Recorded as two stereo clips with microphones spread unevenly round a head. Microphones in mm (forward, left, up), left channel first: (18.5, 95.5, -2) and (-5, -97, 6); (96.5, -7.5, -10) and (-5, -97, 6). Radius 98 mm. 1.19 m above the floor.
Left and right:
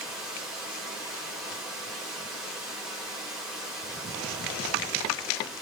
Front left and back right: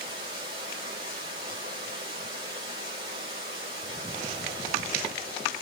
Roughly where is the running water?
Behind.